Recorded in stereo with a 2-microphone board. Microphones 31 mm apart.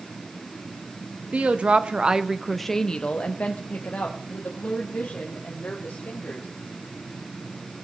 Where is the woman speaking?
50° right (ahead or behind), 0.8 m; by 6.5 s 65° left (ahead or behind), 2 m.